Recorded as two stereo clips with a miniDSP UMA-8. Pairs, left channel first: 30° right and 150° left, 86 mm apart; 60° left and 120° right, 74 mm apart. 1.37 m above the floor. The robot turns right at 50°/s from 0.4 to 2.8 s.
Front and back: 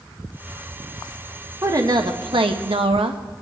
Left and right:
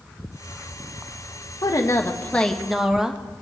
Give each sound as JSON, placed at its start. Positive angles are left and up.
{"t": 1.6, "sound": "a woman speaking", "azimuth_deg": 95, "distance_m": 1.2}